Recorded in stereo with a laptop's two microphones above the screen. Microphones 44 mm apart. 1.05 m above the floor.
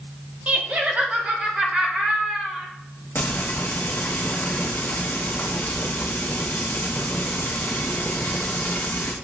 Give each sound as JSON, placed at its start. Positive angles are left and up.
{"t": 0.5, "sound": "laughter", "side_deg": -35, "distance_m": 0.9}
{"t": 3.1, "sound": "frying", "side_deg": 55, "distance_m": 1.1}